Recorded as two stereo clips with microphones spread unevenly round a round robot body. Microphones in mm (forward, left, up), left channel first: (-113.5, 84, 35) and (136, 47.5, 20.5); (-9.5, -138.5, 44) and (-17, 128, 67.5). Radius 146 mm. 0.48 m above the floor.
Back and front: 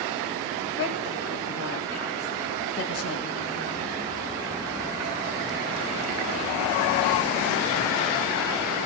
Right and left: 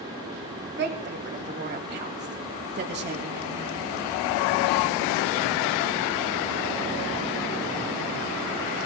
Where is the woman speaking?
145° left, 2.5 m.